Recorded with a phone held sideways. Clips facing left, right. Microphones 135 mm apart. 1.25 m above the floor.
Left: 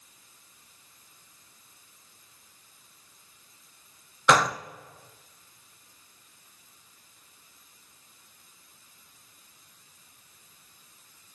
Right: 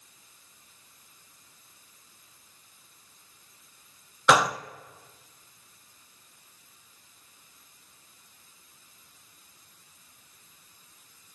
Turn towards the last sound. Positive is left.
turn(degrees=-5)  # may be behind; listen again after turning